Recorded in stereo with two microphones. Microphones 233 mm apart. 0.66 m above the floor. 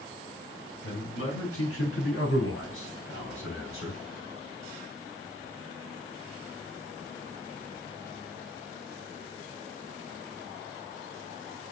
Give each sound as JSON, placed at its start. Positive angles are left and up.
{"t": 0.8, "sound": "a man speaking", "side_deg": 70, "distance_m": 4.5}